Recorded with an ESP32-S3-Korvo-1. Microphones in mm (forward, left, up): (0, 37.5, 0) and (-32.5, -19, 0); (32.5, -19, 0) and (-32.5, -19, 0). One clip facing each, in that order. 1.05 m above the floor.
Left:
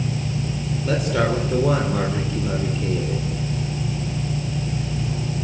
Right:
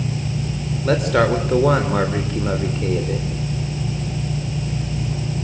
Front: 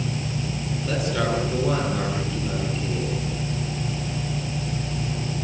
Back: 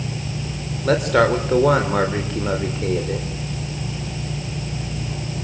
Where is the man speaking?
155° right, 3.5 m.